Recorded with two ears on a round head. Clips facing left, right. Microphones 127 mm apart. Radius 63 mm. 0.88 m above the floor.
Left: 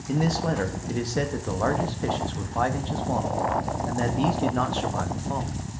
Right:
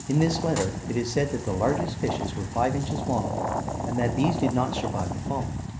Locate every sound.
0.1 s a man speaking: 15° right (ahead or behind), 0.8 m